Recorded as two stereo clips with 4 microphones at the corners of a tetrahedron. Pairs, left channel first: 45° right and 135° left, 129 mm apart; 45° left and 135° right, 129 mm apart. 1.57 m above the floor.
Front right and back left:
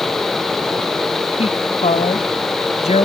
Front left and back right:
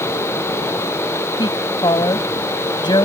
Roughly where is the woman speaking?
Ahead.